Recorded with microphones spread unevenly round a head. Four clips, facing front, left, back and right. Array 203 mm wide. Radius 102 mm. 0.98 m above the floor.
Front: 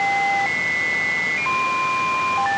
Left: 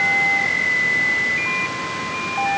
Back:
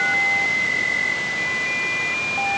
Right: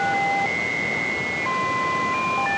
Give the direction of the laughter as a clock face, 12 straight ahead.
I don't hear laughter.